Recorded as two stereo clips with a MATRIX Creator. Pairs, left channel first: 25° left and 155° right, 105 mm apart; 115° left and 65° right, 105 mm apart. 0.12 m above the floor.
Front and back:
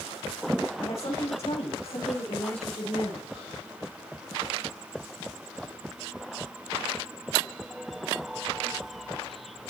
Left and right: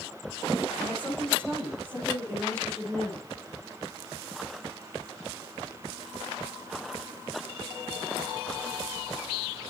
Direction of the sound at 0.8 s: 40° left.